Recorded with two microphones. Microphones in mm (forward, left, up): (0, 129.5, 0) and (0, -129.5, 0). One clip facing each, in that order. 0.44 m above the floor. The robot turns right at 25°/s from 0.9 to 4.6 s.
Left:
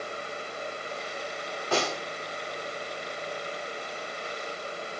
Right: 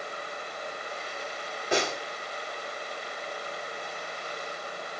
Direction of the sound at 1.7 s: 15° right (ahead or behind).